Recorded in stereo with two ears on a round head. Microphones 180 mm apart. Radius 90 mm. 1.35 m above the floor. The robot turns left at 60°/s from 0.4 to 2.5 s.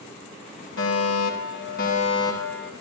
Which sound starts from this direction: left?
A fire alarm, at 0.8 s.